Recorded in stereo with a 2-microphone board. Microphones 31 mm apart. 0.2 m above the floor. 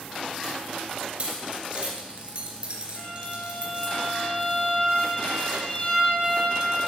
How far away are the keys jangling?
About 2.5 m.